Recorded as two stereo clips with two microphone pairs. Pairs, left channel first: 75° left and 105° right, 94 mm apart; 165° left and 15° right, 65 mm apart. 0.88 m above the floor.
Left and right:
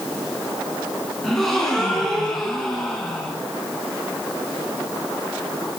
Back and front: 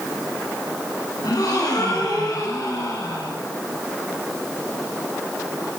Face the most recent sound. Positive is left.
turn(degrees=165)